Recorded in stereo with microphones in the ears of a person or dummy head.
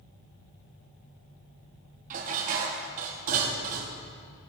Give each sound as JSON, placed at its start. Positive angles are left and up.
{"t": 2.1, "sound": "dishes clattering", "side_deg": -45, "distance_m": 1.4}